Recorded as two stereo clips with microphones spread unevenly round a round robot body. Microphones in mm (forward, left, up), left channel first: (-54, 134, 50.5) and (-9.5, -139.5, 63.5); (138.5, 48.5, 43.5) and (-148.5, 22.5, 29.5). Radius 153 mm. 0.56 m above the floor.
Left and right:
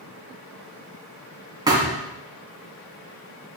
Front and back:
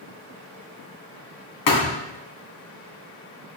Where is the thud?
5° right, 2.5 m.